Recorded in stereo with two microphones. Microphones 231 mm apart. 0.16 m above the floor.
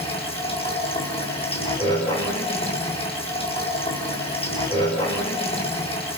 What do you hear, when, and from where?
0.0 s running water: 25° left (ahead or behind), 5 m